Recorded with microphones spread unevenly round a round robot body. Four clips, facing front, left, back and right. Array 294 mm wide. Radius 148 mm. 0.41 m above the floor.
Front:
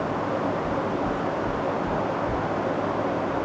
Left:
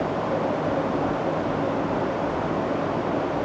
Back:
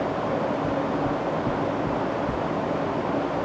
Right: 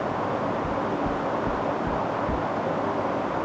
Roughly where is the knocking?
Behind right.